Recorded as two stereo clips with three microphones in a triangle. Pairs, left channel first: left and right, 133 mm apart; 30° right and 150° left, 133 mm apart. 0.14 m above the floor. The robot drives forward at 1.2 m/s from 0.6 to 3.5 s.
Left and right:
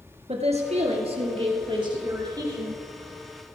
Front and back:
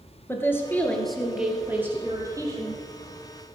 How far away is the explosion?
I don't hear an explosion.